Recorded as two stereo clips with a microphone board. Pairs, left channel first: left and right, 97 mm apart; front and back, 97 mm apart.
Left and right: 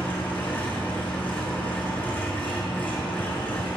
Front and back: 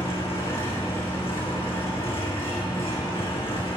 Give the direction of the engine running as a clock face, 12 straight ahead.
11 o'clock.